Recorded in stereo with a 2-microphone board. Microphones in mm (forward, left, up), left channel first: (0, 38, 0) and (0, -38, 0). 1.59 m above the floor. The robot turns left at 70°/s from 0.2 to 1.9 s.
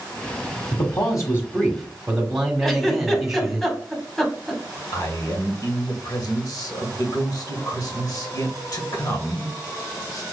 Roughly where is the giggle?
Centre.